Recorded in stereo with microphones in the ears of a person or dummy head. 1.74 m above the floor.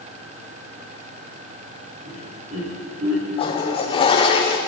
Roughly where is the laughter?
Right.